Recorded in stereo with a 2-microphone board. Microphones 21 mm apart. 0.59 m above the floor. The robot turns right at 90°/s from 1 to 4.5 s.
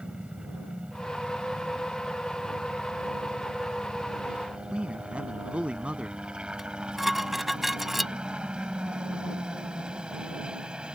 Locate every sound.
0.0 s a helicopter: 60° right (ahead or behind); by 10.9 s 50° right (ahead or behind)
4.7 s a man speaking: 75° right (ahead or behind)
6.6 s dishes clattering: 10° right (ahead or behind)